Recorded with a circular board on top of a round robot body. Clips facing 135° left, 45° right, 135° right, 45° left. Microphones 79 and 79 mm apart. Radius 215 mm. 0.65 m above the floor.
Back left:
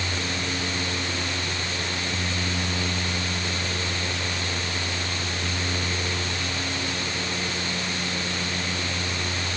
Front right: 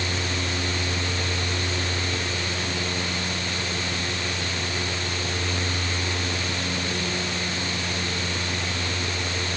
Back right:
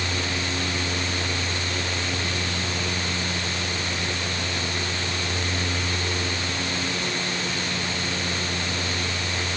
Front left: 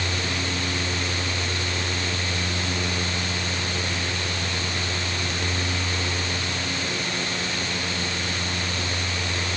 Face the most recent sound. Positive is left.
No sound to turn to.